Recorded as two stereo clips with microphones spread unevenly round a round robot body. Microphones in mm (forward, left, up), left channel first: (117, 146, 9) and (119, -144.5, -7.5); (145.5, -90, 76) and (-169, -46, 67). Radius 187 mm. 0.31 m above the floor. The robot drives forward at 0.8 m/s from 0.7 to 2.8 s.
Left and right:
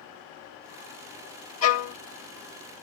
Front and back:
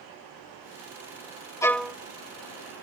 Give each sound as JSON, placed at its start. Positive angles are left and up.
{"t": 1.6, "sound": "a violin", "azimuth_deg": 70}